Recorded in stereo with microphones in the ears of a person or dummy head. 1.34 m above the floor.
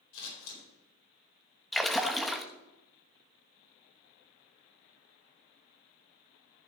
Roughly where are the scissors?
Left.